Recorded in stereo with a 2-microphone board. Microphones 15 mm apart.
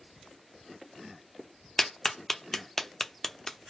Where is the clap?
20° left (ahead or behind), 0.7 m.